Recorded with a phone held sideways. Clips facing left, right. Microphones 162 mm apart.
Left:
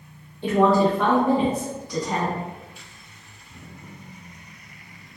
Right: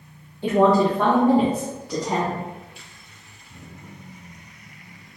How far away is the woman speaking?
About 0.8 m.